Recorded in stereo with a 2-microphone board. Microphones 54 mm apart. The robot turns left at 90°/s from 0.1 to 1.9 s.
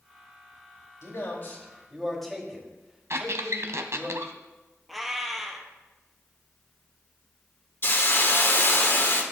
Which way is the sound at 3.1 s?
60° right (ahead or behind).